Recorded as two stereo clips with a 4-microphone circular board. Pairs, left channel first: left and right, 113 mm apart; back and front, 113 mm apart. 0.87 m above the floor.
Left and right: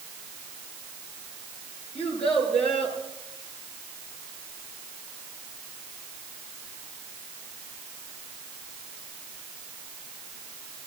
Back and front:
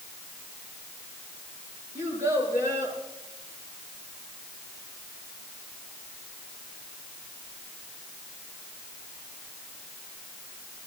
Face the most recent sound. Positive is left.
turn(degrees=60)